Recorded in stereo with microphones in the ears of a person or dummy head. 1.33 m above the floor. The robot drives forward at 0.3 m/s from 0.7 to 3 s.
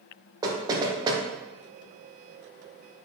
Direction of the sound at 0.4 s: 20° right (ahead or behind).